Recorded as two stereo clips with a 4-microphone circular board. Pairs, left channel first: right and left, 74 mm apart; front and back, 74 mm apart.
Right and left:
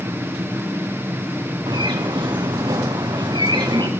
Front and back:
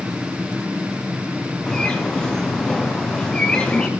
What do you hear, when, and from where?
1.7 s a bird: 75° left, 2.5 m